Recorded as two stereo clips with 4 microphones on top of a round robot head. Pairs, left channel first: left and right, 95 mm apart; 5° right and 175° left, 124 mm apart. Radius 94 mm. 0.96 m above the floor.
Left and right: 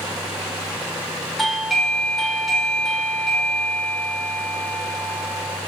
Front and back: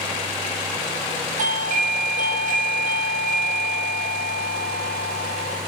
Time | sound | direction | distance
1.4 | a doorbell | straight behind | 4 m